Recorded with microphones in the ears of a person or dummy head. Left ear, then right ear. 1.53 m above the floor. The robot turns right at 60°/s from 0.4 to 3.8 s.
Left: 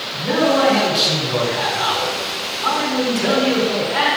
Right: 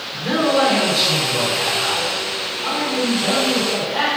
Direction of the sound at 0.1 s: 35° right.